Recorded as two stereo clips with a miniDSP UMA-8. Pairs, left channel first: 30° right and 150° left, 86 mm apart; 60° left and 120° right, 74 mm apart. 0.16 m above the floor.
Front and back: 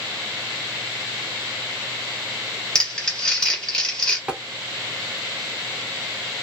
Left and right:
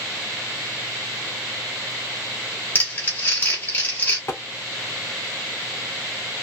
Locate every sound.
2.8 s crumpling: 40° left, 1.0 m
4.3 s tapping: 75° left, 0.6 m